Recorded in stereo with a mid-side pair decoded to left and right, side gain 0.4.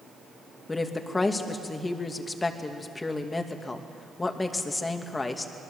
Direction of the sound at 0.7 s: 30° left.